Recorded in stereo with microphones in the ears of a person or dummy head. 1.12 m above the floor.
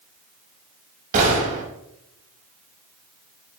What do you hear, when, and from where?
1.1 s a gunshot: 45° right (ahead or behind), 5.5 m